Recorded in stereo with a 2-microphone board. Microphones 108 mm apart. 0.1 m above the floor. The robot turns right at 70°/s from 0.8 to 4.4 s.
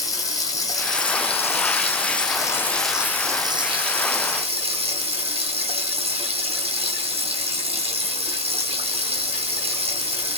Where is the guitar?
No guitar in this recording.